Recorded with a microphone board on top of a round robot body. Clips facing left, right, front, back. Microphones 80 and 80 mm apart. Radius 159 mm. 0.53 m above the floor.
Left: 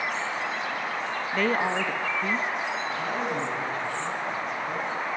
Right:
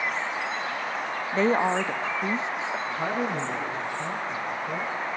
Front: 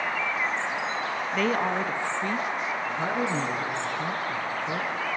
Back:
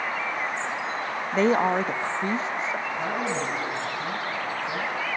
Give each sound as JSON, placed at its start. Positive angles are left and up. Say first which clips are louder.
{"t": 1.3, "sound": "a woman speaking", "louder": "right 3 dB, back 5 dB", "azimuth_deg": -140, "distance_m": 0.8}
{"t": 2.9, "sound": "a man speaking", "louder": "right 1 dB, even", "azimuth_deg": -20, "distance_m": 8.0}